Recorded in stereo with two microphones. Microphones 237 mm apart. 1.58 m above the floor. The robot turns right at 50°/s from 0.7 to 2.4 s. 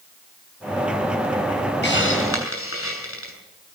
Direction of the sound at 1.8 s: 50° left (ahead or behind).